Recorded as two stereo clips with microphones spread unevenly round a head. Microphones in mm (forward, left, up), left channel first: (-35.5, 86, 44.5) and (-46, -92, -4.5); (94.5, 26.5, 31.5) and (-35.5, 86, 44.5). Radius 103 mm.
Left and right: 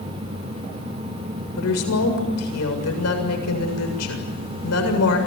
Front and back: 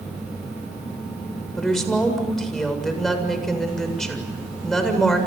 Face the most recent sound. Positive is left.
turn(degrees=65)